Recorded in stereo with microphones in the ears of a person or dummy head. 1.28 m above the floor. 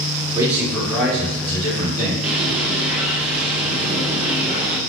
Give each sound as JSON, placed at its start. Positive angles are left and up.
{"t": 0.3, "sound": "a man speaking", "side_deg": -15, "distance_m": 1.0}
{"t": 2.2, "sound": "a bird", "side_deg": -5, "distance_m": 0.7}